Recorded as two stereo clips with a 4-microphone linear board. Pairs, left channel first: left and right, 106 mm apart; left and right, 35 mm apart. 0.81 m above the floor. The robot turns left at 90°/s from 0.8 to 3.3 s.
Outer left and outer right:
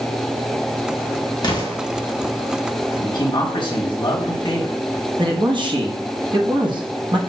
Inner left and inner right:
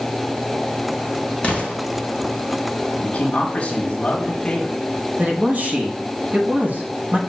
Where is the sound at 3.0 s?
40° left (ahead or behind), 1.3 m; by 4.8 s 45° left (ahead or behind), 1.3 m.